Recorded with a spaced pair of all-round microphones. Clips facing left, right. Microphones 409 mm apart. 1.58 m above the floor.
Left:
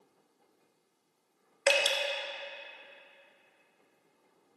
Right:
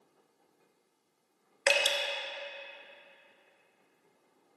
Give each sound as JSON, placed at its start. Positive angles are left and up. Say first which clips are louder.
{"t": 1.7, "sound": "dripping", "louder": "left 2 dB", "side_deg": -5, "distance_m": 0.6}